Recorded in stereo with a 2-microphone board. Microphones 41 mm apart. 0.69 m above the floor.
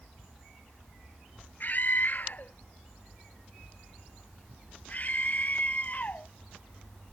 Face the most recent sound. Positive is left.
turn(degrees=40)  # may be behind; listen again after turning